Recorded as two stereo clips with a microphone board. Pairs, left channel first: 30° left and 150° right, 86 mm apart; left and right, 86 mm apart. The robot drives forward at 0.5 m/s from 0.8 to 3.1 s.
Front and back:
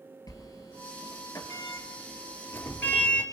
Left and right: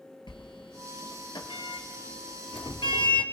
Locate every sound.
0.3 s a sliding door: 70° left, 2 m; by 3.2 s 100° left, 2 m